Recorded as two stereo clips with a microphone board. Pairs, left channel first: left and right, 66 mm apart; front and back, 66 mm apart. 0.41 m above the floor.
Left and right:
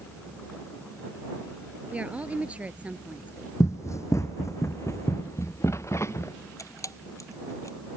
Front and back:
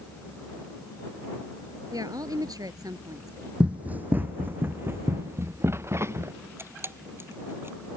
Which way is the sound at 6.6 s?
130° left.